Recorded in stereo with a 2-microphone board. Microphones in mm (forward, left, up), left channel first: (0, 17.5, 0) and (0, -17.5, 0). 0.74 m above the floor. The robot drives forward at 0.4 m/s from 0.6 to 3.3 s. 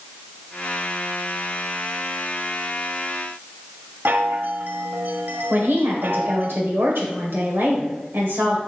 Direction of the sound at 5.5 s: 80° right.